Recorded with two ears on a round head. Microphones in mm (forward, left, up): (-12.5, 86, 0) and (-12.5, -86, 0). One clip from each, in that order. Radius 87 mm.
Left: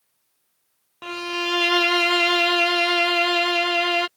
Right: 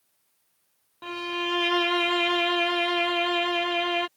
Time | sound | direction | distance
1.0 | a violin | 40° left (ahead or behind) | ?